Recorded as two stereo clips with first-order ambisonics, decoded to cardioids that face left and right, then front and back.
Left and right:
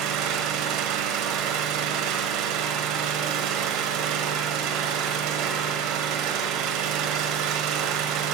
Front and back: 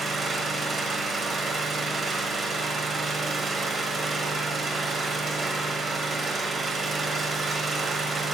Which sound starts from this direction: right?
An engine running, at 0.0 s.